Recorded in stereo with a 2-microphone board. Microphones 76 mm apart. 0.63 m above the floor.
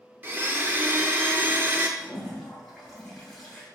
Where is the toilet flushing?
Centre (ahead or behind), 1.8 m.